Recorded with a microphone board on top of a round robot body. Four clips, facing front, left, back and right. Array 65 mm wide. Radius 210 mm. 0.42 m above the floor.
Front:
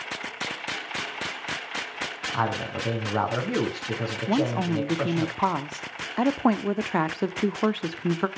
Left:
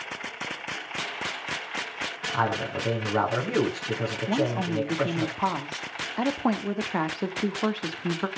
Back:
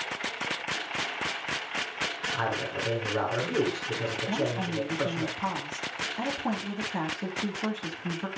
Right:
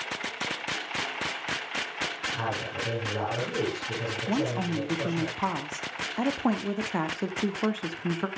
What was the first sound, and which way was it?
A man speaking, 45° left.